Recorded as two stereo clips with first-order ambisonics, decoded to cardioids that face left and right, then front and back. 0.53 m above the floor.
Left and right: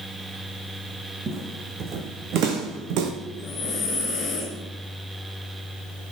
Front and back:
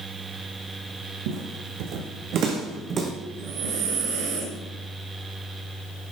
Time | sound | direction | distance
1.3 | footsteps | 160° right | 2 m
3.3 | breathing | 150° left | 3.5 m